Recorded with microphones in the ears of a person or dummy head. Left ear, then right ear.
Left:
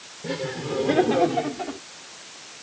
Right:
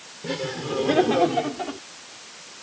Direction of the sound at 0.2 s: 5° right (ahead or behind).